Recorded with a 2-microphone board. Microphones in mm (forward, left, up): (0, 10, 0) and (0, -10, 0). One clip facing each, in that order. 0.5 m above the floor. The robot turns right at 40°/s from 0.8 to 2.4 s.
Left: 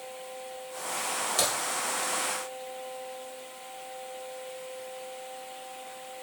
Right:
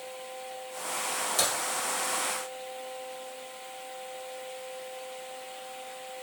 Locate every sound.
1.4 s a crack: 20° left (ahead or behind), 1.7 m; by 1.5 s 25° left (ahead or behind), 1.7 m